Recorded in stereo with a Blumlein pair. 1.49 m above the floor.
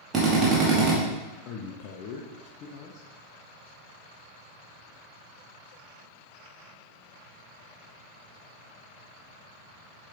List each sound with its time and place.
0.1 s a drill: 20° right, 1.9 m
1.4 s a man speaking: 40° left, 0.8 m